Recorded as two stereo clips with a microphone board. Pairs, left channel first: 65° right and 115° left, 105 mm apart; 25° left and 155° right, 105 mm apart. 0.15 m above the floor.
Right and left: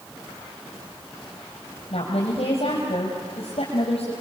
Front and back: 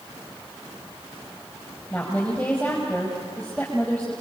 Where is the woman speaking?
55° right, 4.5 m.